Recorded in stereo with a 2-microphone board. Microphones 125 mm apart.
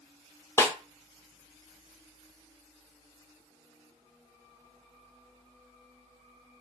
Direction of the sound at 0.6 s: 25° left (ahead or behind).